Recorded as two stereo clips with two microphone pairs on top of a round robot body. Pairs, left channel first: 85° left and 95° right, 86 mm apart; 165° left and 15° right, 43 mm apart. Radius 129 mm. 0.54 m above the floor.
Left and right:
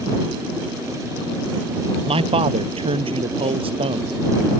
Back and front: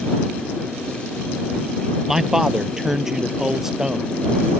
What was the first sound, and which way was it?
A man speaking, 95° right.